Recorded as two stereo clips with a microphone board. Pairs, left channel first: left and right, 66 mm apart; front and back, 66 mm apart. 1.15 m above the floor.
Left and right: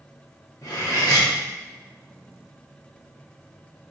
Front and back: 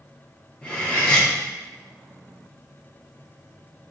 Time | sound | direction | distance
0.6 | cutlery clinking | 70° left | 1.4 m